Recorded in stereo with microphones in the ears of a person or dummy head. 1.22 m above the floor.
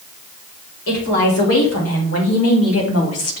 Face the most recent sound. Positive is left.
turn(degrees=70)  # may be behind; listen again after turning